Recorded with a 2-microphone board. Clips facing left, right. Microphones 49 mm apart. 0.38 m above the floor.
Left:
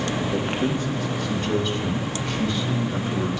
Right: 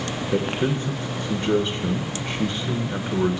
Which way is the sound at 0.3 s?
30° right (ahead or behind).